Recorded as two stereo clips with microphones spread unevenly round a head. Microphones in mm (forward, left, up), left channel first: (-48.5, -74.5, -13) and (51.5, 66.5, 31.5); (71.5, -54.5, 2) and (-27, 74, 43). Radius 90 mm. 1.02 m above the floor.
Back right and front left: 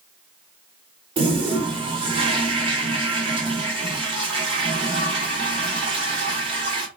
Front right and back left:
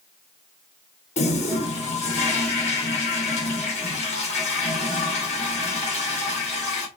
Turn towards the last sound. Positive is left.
turn(degrees=-5)